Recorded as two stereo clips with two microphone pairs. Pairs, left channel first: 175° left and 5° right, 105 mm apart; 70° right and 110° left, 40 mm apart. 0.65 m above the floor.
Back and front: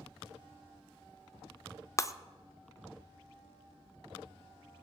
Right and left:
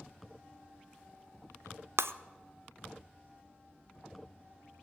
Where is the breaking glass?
115° left, 0.6 m.